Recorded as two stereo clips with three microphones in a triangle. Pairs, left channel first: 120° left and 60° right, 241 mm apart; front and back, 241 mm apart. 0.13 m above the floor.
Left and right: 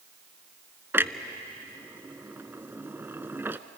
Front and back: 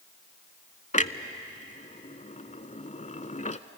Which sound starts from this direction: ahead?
A clunk, at 0.9 s.